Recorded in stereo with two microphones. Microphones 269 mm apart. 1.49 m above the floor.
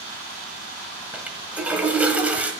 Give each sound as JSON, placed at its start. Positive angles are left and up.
{"t": 1.1, "sound": "a toilet flushing", "side_deg": -5, "distance_m": 1.4}